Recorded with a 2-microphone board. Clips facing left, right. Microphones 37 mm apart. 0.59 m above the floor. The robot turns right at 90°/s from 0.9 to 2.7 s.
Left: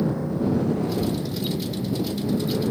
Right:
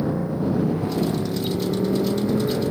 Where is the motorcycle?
10° right (ahead or behind).